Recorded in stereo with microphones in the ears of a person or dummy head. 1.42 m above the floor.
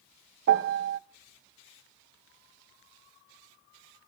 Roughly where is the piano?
Right.